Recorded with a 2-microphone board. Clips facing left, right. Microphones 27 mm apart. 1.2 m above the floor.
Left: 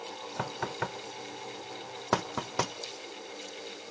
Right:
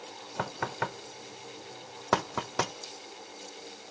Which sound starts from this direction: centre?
Knocking, at 0.4 s.